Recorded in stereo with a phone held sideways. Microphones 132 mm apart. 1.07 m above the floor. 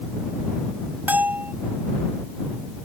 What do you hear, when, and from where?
1.1 s a bell: 15° right (ahead or behind)